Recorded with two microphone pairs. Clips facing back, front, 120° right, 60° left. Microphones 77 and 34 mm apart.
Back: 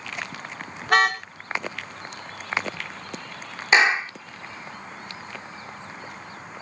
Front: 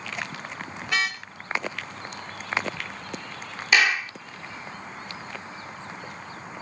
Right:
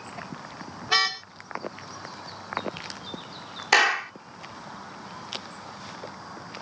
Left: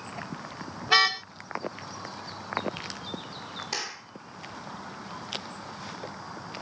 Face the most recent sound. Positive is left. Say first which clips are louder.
# back 3 dB, right 19 dB
turn(degrees=-120)